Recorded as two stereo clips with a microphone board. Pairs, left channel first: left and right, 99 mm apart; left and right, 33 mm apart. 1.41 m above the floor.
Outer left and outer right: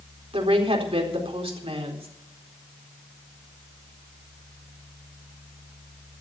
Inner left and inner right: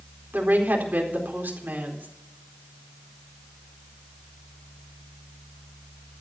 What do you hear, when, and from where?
0.3 s a woman speaking: 75° right (ahead or behind), 4 m